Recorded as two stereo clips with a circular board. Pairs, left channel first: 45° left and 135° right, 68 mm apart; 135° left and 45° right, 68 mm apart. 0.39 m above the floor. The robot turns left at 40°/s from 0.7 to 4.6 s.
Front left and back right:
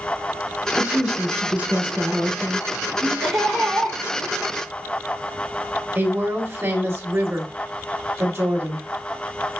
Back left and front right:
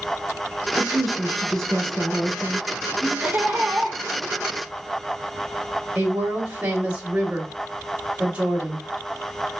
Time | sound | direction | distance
0.8 | a woman speaking | 125° right | 0.8 m
3.2 | laughter | 45° right | 1.7 m
6.0 | a woman speaking | 110° right | 1.8 m